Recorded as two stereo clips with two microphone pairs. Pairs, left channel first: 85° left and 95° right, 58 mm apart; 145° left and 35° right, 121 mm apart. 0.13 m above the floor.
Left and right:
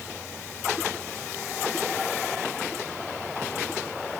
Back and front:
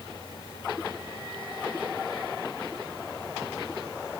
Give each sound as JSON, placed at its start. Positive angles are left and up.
{"t": 0.0, "sound": "an insect", "azimuth_deg": 145}